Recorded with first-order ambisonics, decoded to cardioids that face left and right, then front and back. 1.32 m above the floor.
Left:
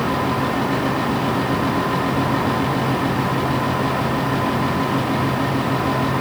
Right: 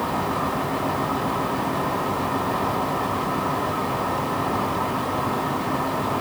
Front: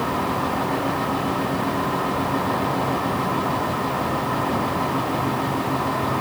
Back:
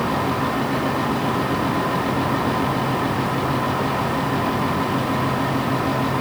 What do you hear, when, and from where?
Only background noise.